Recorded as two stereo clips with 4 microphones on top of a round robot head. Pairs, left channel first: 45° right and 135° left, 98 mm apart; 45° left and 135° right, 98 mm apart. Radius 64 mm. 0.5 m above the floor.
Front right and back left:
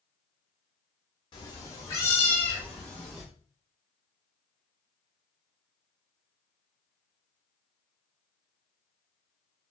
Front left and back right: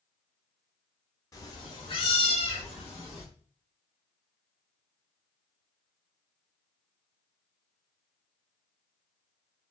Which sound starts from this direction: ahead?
A cat meowing, at 1.3 s.